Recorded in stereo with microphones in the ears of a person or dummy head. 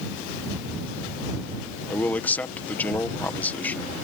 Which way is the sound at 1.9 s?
5° left (ahead or behind).